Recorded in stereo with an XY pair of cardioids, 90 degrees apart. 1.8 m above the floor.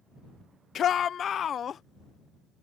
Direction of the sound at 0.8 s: 65° left.